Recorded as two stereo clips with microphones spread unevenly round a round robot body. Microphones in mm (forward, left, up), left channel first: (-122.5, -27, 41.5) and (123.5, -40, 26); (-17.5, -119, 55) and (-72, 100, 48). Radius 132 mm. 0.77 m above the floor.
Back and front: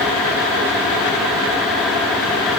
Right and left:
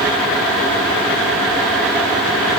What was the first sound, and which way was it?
Only background noise.